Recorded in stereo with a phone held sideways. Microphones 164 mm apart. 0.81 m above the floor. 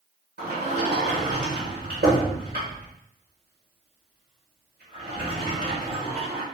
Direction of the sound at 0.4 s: 80° right.